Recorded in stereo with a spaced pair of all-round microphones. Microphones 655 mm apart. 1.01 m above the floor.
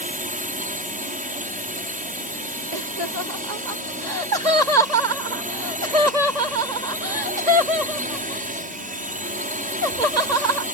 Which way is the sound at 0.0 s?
10° right (ahead or behind).